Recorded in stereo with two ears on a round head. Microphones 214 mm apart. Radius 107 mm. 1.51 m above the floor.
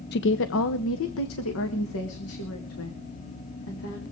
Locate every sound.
0.1 s a woman speaking: 45° left (ahead or behind), 0.5 m; by 4.0 s 70° left (ahead or behind), 3.5 m